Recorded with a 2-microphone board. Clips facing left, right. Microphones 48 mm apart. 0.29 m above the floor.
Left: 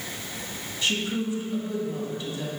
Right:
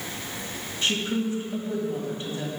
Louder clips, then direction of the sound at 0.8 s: Right 1 dB; 35° right (ahead or behind).